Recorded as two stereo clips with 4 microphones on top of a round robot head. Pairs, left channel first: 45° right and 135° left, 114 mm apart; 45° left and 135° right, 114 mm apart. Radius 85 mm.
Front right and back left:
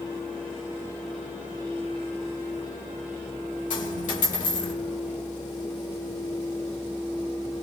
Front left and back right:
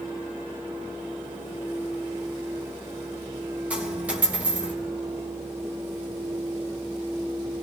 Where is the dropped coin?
55° right, 3.5 m.